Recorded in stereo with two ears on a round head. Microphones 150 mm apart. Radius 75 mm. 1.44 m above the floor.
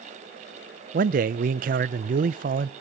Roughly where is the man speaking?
Right.